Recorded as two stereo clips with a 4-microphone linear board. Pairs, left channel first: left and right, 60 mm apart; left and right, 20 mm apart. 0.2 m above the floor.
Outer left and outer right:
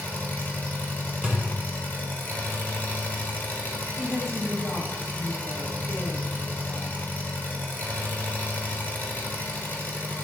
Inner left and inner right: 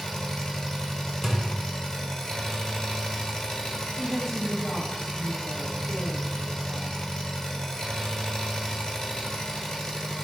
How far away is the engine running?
About 1.1 m.